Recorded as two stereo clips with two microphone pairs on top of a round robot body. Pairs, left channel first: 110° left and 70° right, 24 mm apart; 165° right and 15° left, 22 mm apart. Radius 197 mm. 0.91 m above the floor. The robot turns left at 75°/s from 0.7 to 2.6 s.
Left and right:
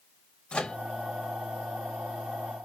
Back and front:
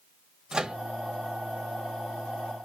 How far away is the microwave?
About 0.8 m.